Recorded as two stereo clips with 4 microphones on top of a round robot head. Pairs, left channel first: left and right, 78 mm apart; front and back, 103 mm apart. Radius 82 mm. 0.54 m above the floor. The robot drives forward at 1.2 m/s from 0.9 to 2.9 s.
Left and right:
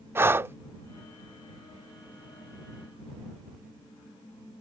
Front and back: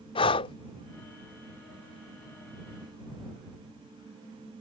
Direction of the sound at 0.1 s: 30° right.